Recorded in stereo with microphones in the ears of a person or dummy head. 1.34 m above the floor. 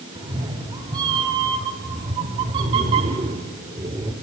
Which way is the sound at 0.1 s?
20° right (ahead or behind).